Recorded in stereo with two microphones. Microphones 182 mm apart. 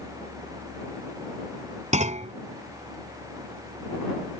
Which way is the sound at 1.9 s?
40° right (ahead or behind).